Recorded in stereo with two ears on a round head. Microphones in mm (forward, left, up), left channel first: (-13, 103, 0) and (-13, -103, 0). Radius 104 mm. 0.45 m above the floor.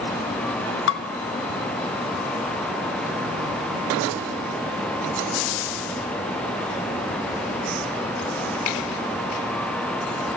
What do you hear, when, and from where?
0.9 s dishes clattering: 55° left (ahead or behind), 1.4 m